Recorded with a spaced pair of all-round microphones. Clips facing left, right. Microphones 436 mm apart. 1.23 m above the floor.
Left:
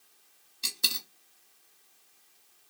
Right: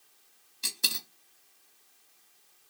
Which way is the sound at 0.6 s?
Centre (ahead or behind).